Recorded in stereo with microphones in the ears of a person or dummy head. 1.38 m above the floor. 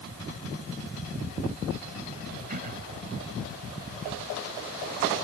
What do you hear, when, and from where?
2.5 s throat clearing: 40° right (ahead or behind)